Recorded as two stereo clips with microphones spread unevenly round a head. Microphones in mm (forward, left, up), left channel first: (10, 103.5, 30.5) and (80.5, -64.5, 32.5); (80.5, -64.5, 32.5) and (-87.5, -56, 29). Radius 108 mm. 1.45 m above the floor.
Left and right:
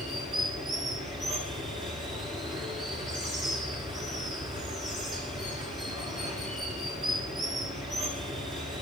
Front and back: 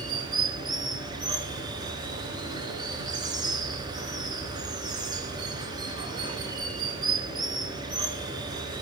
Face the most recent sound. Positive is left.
turn(degrees=-125)